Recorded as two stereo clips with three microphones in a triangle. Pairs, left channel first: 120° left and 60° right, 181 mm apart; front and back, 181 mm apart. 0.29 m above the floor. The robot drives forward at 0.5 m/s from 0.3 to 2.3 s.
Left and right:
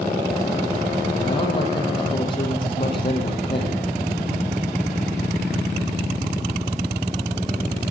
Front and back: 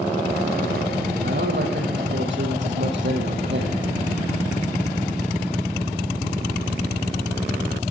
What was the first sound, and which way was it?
A man speaking, 175° right.